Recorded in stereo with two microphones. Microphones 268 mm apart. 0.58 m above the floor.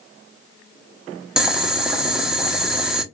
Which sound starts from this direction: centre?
Boiling, at 1.4 s.